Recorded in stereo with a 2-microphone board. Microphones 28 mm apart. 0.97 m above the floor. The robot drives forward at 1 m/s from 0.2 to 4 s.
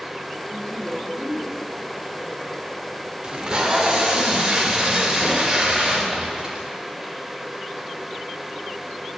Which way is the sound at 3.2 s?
30° right (ahead or behind).